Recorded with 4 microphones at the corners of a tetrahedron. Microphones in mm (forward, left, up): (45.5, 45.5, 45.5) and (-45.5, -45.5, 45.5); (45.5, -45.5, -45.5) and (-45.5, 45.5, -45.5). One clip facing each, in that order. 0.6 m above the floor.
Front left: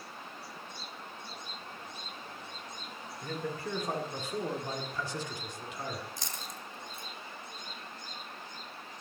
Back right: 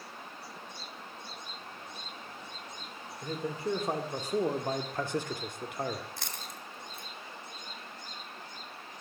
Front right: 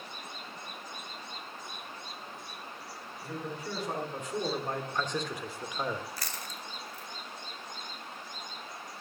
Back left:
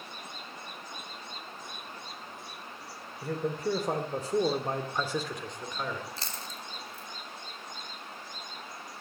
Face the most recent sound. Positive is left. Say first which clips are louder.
# even, even
turn(degrees=-160)